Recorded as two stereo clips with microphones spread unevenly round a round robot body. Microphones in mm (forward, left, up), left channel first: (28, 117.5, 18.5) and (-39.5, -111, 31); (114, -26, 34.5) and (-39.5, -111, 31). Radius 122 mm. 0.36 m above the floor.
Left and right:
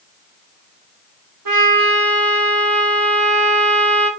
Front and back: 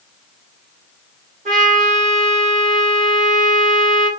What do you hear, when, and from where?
1.4 s a trumpet: 100° right, 1.8 m